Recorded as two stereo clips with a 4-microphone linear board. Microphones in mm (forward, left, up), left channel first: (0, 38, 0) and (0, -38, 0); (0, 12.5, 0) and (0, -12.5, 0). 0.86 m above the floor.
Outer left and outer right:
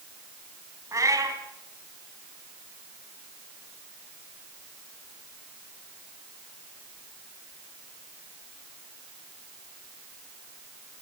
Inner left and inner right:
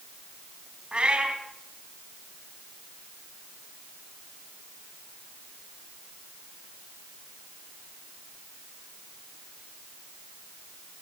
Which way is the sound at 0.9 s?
45° right (ahead or behind).